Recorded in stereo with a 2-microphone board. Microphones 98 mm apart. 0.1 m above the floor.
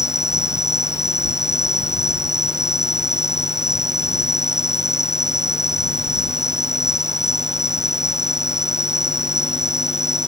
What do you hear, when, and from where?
0.0 s an insect: 30° left (ahead or behind)